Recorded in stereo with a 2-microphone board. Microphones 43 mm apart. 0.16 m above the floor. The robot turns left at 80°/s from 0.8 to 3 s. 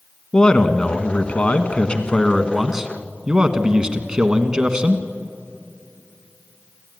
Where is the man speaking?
140° left, 1.3 m; by 5.0 s 35° right, 1.3 m.